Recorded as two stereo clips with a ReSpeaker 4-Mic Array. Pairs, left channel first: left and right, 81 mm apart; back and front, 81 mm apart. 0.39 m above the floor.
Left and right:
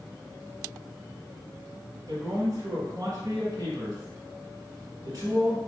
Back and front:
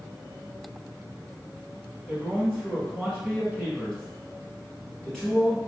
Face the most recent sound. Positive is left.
turn(degrees=-95)